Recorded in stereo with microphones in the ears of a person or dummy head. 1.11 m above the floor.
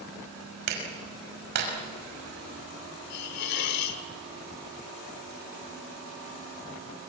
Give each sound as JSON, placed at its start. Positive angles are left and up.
{"t": 0.7, "sound": "a clap", "side_deg": -60, "distance_m": 5.5}
{"t": 3.1, "sound": "a hiss", "side_deg": 55, "distance_m": 1.2}